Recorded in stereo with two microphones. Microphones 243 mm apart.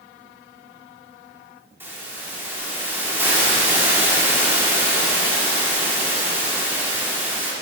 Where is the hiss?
10° right (ahead or behind), 2.5 m.